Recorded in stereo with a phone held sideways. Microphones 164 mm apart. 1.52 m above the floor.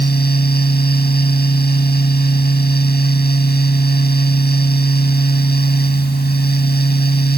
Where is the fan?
80° left.